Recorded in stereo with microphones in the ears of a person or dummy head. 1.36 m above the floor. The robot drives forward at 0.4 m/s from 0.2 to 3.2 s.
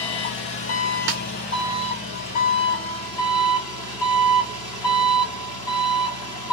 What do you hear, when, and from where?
0.0 s an engine running: 35° left (ahead or behind), 0.9 m; by 6.5 s 20° left (ahead or behind), 1.4 m
1.1 s a snare drum: 55° right (ahead or behind), 0.8 m